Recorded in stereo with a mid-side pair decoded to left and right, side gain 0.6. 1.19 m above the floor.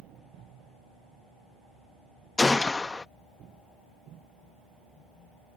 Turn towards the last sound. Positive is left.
turn(degrees=20)